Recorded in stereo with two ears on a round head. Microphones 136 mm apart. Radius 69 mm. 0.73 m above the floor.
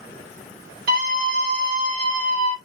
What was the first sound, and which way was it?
A scream, 65° right (ahead or behind).